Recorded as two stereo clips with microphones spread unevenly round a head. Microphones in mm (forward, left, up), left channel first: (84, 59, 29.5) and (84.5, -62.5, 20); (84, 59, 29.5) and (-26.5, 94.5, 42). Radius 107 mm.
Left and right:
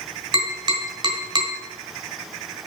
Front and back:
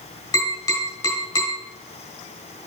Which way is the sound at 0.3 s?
70° right.